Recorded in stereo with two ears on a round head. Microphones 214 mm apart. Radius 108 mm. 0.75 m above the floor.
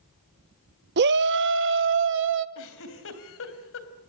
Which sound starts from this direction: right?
A shout, at 1.0 s.